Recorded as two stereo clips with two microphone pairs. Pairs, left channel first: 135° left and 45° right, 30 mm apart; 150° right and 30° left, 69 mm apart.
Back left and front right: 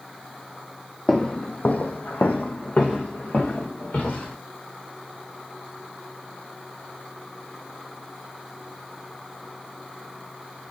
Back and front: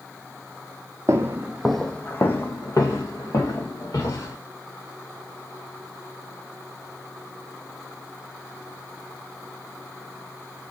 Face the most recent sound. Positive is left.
turn(degrees=-175)